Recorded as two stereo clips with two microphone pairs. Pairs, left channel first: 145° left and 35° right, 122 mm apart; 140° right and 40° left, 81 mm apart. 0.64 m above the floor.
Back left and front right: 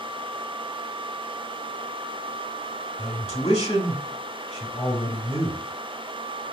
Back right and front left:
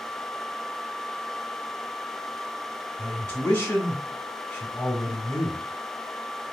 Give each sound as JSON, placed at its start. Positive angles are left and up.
{"t": 3.0, "sound": "a man speaking", "azimuth_deg": 170, "distance_m": 1.7}